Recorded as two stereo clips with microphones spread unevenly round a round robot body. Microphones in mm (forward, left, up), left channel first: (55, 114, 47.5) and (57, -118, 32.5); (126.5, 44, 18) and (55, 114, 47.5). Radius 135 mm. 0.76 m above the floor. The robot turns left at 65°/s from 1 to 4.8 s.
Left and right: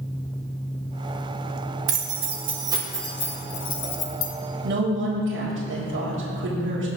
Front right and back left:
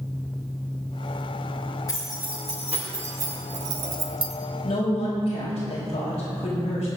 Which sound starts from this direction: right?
Keys jangling, at 1.9 s.